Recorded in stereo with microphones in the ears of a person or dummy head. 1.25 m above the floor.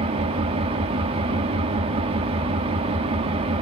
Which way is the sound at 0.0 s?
30° right (ahead or behind).